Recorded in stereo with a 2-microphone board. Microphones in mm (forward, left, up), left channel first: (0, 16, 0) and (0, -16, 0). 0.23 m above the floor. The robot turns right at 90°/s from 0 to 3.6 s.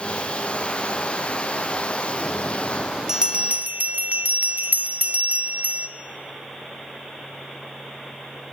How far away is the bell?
About 1.1 m.